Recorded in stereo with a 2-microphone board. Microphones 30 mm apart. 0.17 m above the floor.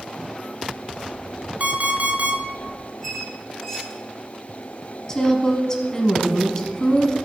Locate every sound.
1.6 s an alarm clock: 55° right (ahead or behind), 1.2 m
3.0 s a squeak: 10° left (ahead or behind), 4 m
5.1 s a woman speaking: 20° left (ahead or behind), 1.1 m